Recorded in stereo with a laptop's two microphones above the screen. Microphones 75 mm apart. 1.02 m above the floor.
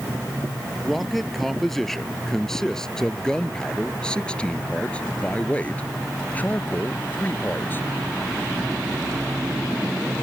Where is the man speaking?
Centre (ahead or behind); by 7.9 s 30° left (ahead or behind).